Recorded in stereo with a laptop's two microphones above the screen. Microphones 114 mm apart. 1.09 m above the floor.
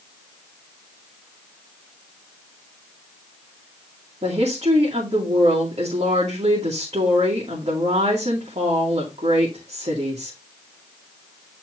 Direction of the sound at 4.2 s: 60° right (ahead or behind).